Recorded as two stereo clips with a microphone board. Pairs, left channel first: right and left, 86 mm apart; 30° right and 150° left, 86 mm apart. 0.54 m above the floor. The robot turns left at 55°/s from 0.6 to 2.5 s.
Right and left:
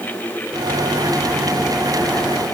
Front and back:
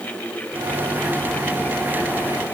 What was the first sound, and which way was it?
Only background noise.